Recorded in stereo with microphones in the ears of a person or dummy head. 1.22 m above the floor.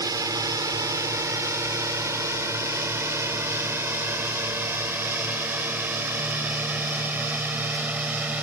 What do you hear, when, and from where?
0.0 s a drone: 20° right (ahead or behind); by 8.4 s 10° right (ahead or behind)